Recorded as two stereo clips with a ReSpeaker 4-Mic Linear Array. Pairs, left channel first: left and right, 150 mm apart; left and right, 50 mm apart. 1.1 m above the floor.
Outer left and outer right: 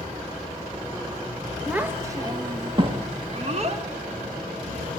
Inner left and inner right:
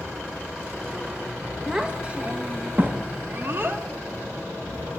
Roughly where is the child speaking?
Centre.